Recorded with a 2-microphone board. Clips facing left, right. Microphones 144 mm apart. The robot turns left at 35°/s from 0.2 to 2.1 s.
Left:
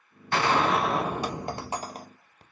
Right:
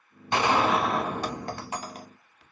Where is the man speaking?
I don't hear a man speaking.